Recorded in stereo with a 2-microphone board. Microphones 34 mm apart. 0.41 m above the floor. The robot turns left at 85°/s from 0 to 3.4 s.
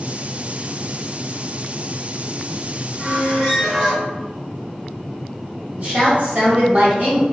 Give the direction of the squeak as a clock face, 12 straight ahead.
11 o'clock.